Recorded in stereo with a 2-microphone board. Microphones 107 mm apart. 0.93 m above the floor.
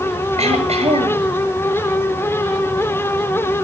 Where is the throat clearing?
85° right, 5.5 m.